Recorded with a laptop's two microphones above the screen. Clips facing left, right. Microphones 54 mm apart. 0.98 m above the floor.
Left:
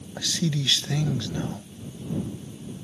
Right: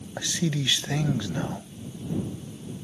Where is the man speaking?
15° right (ahead or behind).